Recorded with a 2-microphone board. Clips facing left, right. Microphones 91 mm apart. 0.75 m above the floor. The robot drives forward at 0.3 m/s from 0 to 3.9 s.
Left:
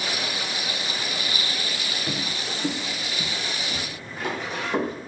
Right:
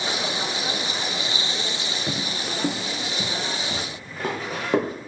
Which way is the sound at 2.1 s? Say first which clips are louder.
Right 2 dB; 20° right (ahead or behind).